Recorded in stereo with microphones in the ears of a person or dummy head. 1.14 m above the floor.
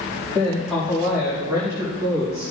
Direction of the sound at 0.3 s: 15° left (ahead or behind).